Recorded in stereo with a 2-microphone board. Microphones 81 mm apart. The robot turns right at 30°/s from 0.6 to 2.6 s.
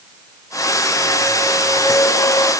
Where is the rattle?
I don't hear a rattle.